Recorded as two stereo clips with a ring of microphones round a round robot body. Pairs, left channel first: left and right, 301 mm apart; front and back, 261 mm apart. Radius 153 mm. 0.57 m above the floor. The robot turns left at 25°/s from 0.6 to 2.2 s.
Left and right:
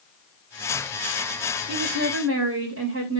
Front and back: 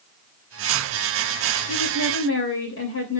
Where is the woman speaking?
35° right, 3 m; by 3.2 s 45° right, 3 m.